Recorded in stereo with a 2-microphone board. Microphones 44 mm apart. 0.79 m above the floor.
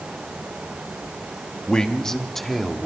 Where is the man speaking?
20° left (ahead or behind), 1.4 m; by 2.9 s centre (ahead or behind), 2 m.